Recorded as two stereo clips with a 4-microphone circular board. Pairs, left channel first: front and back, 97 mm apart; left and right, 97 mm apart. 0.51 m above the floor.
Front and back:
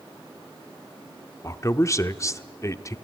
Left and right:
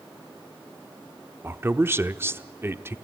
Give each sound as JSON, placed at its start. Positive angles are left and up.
{"t": 1.4, "sound": "a man speaking", "azimuth_deg": -35, "distance_m": 0.8}